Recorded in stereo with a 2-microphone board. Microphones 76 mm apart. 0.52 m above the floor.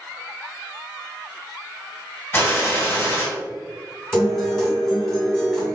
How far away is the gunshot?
About 1.5 m.